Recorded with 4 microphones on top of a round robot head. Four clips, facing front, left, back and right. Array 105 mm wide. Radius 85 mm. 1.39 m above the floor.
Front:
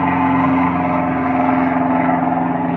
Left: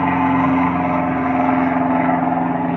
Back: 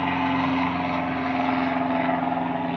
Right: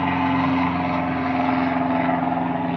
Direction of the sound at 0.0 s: 35° left.